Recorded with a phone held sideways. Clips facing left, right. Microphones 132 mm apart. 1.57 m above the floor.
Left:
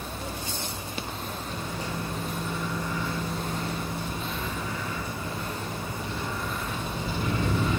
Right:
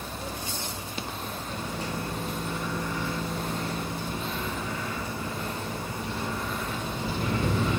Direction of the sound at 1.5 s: 65° right (ahead or behind).